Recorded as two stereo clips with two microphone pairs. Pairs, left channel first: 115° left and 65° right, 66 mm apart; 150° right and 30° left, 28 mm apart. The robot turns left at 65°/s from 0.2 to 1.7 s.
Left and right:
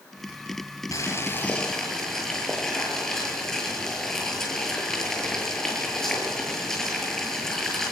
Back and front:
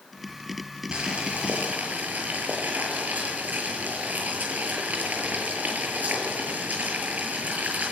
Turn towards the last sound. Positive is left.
turn(degrees=30)